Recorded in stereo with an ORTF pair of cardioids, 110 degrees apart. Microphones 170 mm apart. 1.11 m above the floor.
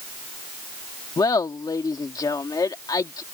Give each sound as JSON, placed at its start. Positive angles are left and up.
{"t": 1.2, "sound": "laughter", "azimuth_deg": 25}